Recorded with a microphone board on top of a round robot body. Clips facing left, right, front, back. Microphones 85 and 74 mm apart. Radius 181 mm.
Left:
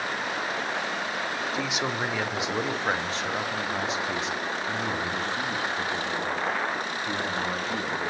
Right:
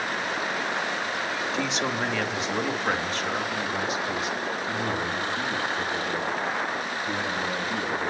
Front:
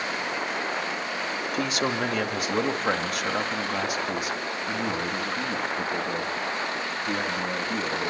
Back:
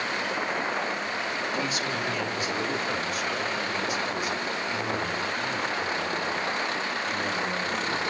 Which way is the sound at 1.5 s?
5° left.